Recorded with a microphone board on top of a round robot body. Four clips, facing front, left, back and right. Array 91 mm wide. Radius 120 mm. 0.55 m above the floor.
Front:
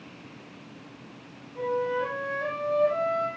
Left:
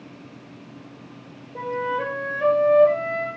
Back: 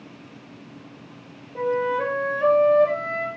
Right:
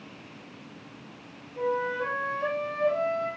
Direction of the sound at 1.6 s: 120° left.